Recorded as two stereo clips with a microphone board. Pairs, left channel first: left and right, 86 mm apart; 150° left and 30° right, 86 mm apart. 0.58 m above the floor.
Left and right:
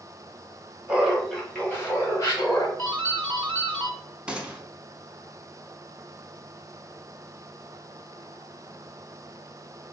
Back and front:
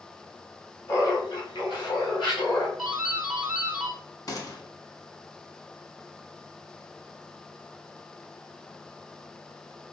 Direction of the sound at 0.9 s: 165° right.